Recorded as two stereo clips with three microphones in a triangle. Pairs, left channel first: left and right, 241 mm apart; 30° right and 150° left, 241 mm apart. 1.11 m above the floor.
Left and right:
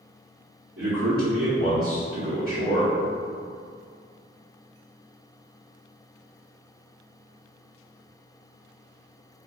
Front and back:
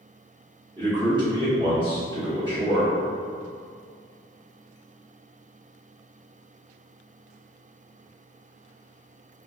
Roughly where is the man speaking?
Behind right.